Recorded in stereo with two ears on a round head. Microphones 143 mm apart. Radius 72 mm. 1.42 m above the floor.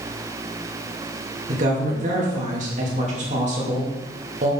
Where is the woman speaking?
50° right (ahead or behind), 2.5 m.